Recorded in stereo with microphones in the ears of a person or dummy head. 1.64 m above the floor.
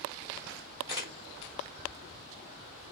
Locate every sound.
0.9 s a camera shutter: 20° right (ahead or behind), 1.6 m